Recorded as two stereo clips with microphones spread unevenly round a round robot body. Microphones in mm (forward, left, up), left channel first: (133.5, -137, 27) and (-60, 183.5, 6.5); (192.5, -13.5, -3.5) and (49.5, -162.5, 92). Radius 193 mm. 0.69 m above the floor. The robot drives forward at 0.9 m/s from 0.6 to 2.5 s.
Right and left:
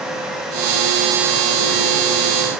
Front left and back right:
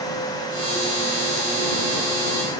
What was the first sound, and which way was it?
Only background noise.